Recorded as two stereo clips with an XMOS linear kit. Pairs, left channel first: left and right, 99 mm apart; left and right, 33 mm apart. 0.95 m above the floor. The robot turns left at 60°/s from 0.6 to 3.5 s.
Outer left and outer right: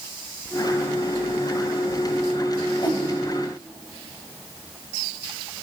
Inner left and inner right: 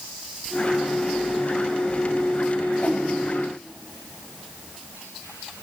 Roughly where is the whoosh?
Left.